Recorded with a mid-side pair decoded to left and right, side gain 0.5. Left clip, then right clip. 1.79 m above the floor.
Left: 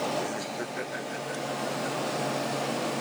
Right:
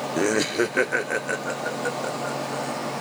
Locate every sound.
0.2 s laughter: 70° right; by 2.8 s 75° right